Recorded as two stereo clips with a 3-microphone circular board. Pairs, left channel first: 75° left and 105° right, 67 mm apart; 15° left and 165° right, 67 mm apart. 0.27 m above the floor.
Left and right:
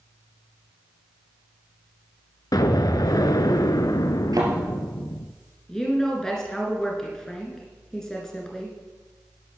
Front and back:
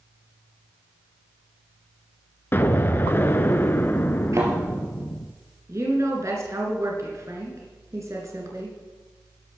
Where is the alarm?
I don't hear an alarm.